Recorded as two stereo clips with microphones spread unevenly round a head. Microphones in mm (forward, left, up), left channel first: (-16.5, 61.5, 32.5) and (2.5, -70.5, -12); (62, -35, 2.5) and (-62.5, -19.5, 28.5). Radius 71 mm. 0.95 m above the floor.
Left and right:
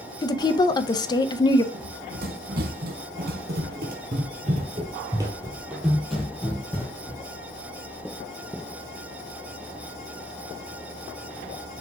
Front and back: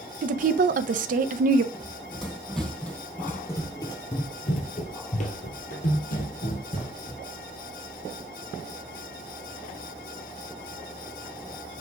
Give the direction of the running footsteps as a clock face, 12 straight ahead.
4 o'clock.